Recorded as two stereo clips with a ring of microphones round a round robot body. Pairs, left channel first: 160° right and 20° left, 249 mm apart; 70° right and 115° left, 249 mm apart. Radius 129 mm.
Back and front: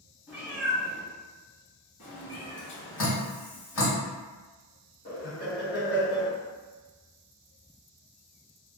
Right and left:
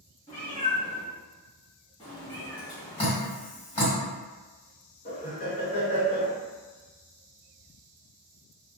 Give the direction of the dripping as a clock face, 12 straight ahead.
5 o'clock.